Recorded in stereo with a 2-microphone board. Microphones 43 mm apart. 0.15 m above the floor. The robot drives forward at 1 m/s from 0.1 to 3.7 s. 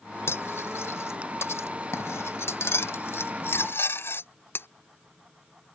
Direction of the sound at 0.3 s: 70° left (ahead or behind).